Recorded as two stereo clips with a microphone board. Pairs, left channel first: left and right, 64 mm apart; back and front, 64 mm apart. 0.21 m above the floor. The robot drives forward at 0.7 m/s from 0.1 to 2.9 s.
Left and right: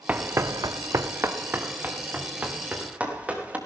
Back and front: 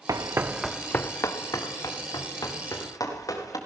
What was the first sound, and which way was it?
Running footsteps, 25° right.